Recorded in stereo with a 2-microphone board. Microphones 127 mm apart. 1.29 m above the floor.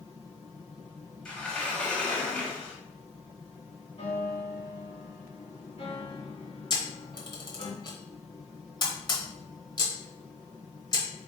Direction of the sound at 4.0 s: 50° left (ahead or behind).